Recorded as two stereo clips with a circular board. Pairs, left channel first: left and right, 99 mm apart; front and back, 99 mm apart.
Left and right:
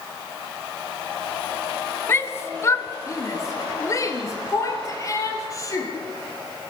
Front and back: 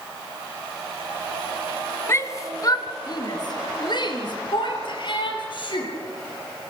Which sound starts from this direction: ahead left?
A shout, at 2.1 s.